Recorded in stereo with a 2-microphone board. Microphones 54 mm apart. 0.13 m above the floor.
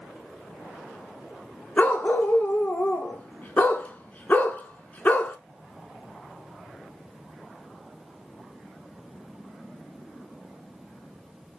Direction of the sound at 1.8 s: 30° left (ahead or behind).